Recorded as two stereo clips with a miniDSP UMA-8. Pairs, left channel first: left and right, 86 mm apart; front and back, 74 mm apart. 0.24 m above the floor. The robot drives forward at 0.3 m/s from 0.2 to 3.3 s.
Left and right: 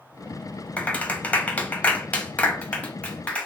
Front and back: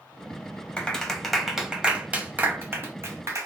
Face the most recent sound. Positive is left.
turn(degrees=160)